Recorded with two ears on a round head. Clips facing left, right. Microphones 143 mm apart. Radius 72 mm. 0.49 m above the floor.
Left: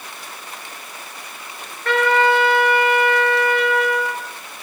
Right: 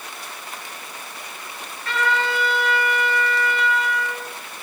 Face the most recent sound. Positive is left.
turn(degrees=50)  # may be behind; listen again after turning